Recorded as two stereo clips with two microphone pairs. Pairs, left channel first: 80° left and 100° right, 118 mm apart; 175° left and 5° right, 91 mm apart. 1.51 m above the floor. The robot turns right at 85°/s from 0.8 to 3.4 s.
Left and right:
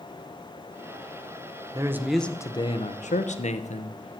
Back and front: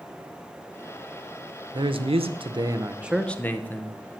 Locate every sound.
1.7 s a man speaking: 40° right, 0.8 m; by 4.2 s 100° left, 0.8 m